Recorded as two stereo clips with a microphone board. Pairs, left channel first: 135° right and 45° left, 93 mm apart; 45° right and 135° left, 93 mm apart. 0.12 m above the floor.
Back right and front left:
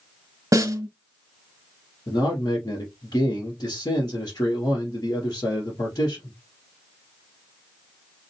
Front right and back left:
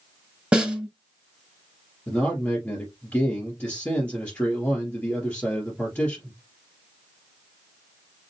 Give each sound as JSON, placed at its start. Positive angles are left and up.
{"t": 0.5, "sound": "a snare drum", "azimuth_deg": 65, "distance_m": 1.2}
{"t": 2.1, "sound": "a man speaking", "azimuth_deg": -105, "distance_m": 2.0}